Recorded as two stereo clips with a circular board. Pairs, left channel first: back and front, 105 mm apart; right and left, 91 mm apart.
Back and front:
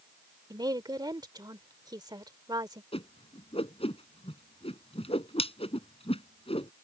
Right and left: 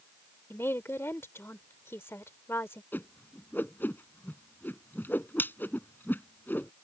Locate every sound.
0.5 s a woman speaking: 35° right
2.9 s a whoosh: 160° right